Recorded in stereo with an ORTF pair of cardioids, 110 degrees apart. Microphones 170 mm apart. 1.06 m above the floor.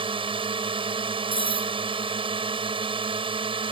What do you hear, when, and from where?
0.0 s a drone: 30° right
1.3 s cutlery clinking: 30° right